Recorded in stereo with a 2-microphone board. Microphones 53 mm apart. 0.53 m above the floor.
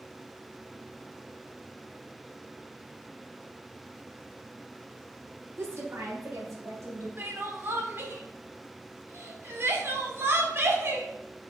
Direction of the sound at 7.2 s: 50° right (ahead or behind).